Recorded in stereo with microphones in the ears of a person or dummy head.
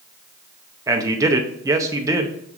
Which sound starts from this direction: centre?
A man speaking, at 0.9 s.